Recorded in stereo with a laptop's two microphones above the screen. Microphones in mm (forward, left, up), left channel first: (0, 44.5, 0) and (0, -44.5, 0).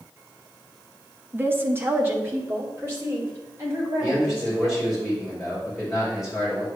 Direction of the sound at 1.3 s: 20° right (ahead or behind).